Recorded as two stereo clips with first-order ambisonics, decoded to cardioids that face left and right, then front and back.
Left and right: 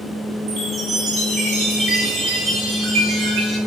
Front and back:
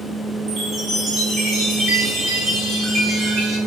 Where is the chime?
115° right, 1.9 m.